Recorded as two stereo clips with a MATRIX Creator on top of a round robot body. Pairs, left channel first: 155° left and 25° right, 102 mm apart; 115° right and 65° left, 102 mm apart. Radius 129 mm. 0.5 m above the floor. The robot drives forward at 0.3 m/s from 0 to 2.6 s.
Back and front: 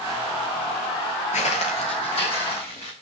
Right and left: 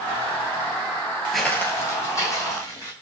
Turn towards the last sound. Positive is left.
turn(degrees=-170)